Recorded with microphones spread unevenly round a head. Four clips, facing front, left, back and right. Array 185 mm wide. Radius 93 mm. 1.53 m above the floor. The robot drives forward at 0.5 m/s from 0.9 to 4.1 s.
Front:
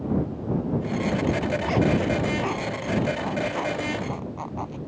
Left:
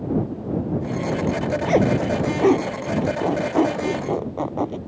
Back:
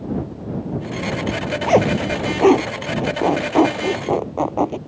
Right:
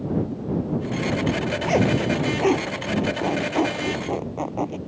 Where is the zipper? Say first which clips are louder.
Left 2 dB, back 7 dB; 160° left.